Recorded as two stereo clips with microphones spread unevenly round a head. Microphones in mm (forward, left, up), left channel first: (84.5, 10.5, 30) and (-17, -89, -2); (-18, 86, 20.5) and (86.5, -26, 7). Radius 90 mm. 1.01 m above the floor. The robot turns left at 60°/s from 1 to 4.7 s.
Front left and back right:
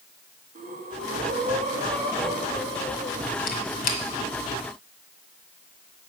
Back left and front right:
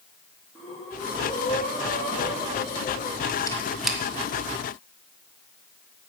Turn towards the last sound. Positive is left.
turn(degrees=-5)